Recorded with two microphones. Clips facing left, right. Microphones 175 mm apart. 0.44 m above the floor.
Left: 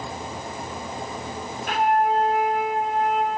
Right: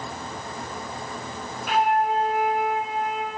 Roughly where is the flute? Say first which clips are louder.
Left 1 dB; left.